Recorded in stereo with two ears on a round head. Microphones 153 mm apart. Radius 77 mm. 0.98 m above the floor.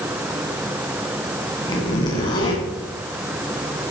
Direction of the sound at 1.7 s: 25° left (ahead or behind).